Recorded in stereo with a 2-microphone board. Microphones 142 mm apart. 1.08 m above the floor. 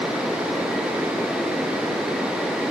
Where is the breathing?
No breathing in this recording.